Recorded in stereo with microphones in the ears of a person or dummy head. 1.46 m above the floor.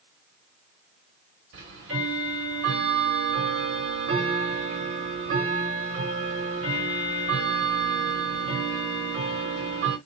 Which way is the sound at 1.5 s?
65° right (ahead or behind).